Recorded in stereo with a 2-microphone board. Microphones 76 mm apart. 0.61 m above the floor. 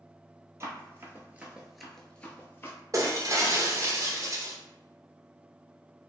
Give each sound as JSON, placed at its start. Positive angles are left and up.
{"t": 0.6, "sound": "running footsteps", "side_deg": -35, "distance_m": 0.8}
{"t": 2.9, "sound": "breaking glass", "side_deg": -40, "distance_m": 0.5}